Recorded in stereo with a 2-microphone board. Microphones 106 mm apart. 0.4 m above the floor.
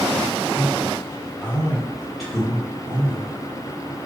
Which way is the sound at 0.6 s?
25° left (ahead or behind).